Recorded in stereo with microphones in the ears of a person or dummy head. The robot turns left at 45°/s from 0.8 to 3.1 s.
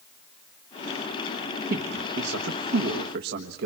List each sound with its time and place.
1.7 s a man speaking: 55° right, 1.3 m; by 3.7 s 120° right, 1.3 m